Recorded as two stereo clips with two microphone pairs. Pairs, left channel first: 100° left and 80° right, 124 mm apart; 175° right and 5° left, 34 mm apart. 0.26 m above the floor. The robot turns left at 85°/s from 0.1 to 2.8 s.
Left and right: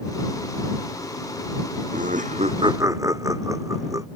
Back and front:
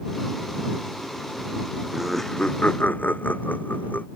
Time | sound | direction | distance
1.9 | laughter | 70° right | ?